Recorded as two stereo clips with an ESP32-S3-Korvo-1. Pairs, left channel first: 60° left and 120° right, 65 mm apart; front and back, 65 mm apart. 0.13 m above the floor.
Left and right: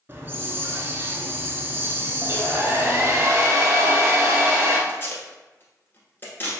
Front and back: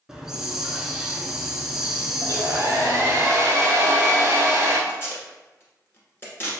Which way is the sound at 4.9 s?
25° left.